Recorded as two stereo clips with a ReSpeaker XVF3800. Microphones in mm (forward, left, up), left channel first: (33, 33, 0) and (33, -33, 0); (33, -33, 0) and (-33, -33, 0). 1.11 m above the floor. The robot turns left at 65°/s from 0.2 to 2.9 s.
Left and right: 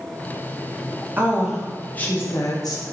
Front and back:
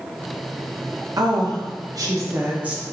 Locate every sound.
1.2 s a woman speaking: 150° right, 0.7 m; by 2.8 s 100° left, 0.7 m